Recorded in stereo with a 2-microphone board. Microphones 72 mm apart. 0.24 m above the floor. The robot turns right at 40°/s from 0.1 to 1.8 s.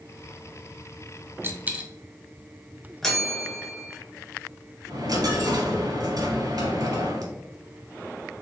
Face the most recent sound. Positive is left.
turn(degrees=-65)  # may be behind; listen again after turning